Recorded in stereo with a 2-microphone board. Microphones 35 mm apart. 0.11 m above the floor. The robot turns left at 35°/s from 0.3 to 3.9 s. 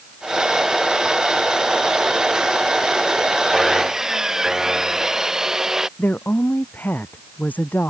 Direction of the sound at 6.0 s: 70° left (ahead or behind).